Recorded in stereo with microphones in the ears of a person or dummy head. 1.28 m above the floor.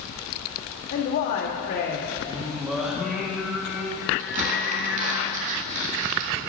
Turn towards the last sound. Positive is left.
turn(degrees=-40)  # may be behind; listen again after turning